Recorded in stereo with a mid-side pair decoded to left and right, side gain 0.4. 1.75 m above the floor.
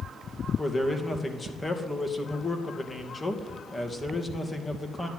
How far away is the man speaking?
About 2.5 m.